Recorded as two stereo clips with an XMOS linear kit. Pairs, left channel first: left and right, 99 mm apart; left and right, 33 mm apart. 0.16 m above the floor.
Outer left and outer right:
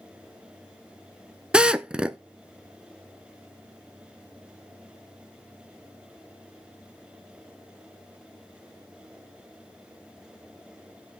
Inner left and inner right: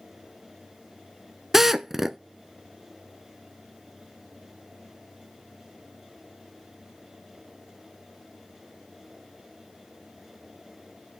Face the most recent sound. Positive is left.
turn(degrees=-10)  # may be behind; listen again after turning